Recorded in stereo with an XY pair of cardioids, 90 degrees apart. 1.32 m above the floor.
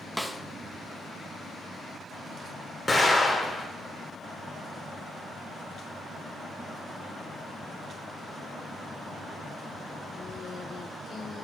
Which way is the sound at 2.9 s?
20° left.